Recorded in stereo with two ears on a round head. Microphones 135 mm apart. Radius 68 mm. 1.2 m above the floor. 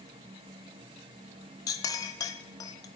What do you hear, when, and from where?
1.7 s a clink: 25° left (ahead or behind), 0.6 m